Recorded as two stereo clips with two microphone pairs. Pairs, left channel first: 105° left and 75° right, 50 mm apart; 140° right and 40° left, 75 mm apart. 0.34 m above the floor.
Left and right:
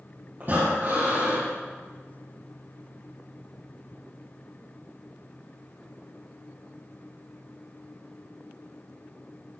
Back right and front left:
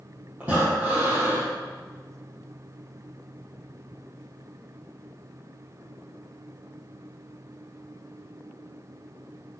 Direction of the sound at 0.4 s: 30° right.